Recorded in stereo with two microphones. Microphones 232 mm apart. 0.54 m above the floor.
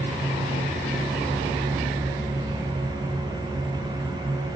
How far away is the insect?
About 1.6 m.